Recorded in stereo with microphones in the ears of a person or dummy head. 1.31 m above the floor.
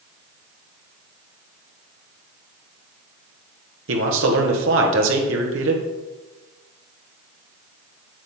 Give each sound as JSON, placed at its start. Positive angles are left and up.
{"t": 3.9, "sound": "a man speaking", "side_deg": -65, "distance_m": 1.1}